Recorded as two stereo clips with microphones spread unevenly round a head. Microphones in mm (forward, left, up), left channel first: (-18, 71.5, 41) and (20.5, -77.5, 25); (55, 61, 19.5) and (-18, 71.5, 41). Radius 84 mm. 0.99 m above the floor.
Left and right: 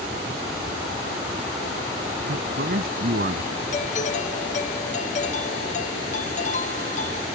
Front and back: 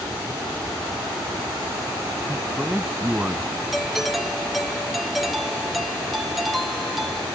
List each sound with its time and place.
2.3 s a man speaking: 105° right; by 3.6 s 110° right
3.7 s a doorbell: 70° left